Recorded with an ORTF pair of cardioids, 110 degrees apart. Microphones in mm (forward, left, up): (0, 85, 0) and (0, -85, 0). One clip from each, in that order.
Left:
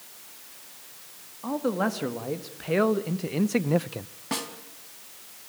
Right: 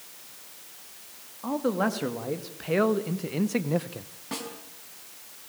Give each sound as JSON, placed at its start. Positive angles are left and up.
{"t": 1.4, "sound": "a man speaking", "azimuth_deg": -5, "distance_m": 2.5}
{"t": 4.3, "sound": "a snare drum", "azimuth_deg": 35, "distance_m": 4.5}